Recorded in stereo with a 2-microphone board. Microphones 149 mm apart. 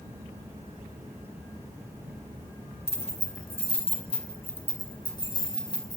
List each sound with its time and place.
2.9 s keys jangling: 50° left (ahead or behind), 3 m; by 6.0 s 25° left (ahead or behind), 4.5 m